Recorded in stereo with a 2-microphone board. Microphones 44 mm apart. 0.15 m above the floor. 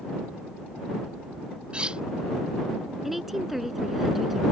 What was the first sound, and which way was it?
Cutlery clinking, 25° right (ahead or behind).